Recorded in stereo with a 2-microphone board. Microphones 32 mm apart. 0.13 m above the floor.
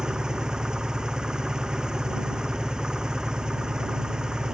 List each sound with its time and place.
0.0 s an engine running: 25° right (ahead or behind)